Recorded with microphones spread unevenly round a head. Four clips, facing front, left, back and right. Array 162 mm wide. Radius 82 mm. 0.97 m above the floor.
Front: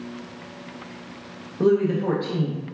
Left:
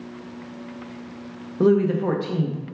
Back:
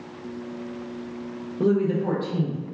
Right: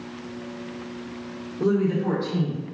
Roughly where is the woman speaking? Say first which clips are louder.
Left 4 dB, front 2 dB; left.